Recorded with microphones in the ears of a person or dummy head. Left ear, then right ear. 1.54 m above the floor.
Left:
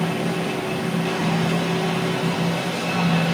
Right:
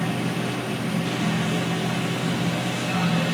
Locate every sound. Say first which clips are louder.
0.0 s a machine running: left 3 dB; 25° left (ahead or behind), 1.0 m